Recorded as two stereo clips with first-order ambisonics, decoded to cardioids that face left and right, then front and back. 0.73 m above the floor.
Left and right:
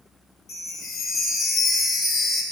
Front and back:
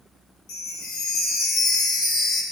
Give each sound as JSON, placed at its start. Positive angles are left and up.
{"t": 0.5, "sound": "a chime", "azimuth_deg": 30, "distance_m": 1.5}